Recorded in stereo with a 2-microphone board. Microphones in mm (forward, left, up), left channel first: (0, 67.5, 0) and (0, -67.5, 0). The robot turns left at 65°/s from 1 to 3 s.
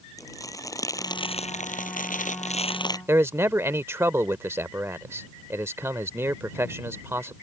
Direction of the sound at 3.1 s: 20° right (ahead or behind).